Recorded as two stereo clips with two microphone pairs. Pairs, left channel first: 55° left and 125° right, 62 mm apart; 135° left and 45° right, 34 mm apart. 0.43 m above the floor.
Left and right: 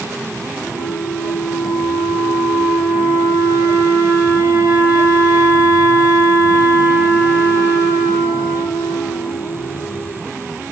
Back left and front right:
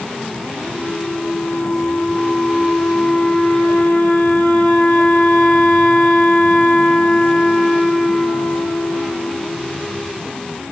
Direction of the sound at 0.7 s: 170° left.